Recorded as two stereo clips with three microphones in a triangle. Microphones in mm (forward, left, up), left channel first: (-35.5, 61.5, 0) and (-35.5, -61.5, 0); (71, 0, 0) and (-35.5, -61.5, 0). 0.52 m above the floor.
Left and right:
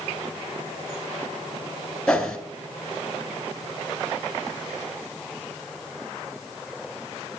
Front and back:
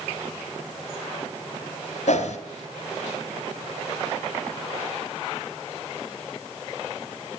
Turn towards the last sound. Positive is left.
turn(degrees=5)